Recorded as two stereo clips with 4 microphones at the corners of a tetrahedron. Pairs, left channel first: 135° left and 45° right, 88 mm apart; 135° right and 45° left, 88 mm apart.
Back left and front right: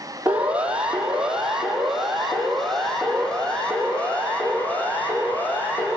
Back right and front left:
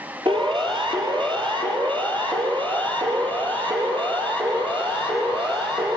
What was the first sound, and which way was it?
A siren, 30° left.